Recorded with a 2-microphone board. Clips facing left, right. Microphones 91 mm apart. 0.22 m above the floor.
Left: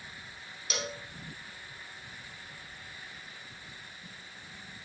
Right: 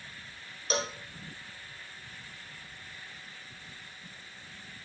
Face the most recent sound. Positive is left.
turn(degrees=-35)  # may be behind; listen again after turning